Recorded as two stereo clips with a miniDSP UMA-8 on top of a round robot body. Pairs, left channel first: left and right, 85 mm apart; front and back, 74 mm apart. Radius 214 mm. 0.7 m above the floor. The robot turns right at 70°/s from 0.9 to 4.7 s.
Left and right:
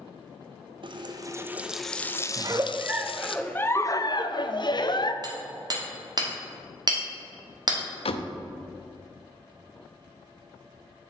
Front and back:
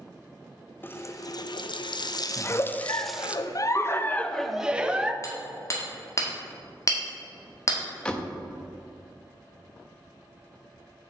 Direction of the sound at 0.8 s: 65° right.